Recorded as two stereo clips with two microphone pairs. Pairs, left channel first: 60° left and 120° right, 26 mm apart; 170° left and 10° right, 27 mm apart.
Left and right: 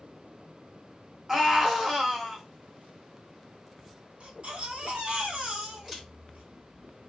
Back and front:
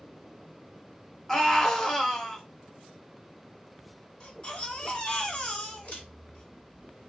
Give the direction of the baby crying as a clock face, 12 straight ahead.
5 o'clock.